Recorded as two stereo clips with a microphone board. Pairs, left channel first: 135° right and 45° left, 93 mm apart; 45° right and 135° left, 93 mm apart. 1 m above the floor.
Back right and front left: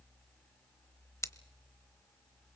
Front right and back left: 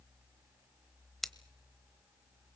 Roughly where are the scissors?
Behind right.